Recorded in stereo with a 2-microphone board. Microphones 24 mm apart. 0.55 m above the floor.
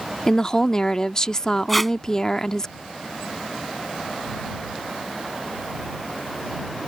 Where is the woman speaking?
25° left (ahead or behind).